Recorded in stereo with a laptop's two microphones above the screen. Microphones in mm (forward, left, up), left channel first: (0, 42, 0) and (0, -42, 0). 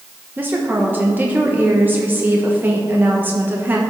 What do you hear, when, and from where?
0.4 s a woman speaking: 20° right (ahead or behind), 0.9 m